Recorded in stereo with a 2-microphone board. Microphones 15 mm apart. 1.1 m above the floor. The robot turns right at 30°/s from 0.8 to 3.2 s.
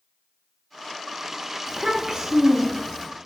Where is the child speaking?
90° right, 0.7 m; by 3.1 s 45° right, 0.7 m.